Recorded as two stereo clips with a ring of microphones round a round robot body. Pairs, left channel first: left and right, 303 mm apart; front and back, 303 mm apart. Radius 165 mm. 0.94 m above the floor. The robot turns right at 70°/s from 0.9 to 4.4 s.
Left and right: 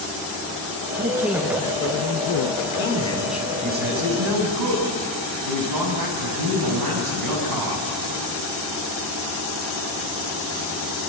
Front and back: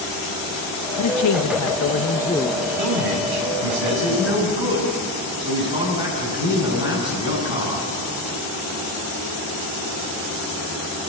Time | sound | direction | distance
1.0 | a man speaking | 25° right | 1.2 m
2.8 | a man speaking | 145° left | 7.5 m